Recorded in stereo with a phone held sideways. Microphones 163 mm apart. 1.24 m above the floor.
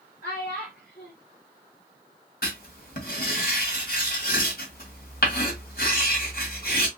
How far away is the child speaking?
About 2.5 m.